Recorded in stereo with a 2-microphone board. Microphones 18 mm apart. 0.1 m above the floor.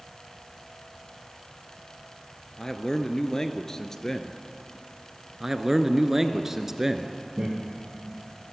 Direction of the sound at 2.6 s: 30° left (ahead or behind).